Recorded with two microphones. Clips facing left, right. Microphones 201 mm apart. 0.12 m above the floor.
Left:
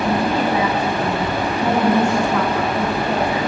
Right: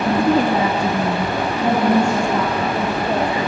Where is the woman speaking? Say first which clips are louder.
Right 3 dB; 50° right (ahead or behind), 2.5 m; by 3.4 s 20° right (ahead or behind), 5.5 m.